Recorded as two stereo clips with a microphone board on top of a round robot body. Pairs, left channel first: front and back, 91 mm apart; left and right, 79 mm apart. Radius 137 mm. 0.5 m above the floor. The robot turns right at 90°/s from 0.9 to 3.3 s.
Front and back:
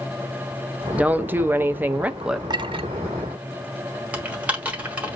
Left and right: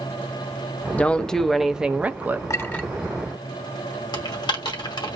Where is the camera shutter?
No camera shutter in this recording.